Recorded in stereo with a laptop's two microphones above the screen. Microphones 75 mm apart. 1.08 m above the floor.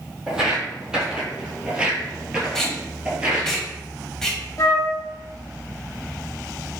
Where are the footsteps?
10° right (ahead or behind), 1.8 m; by 3.5 s 15° right (ahead or behind), 1.2 m.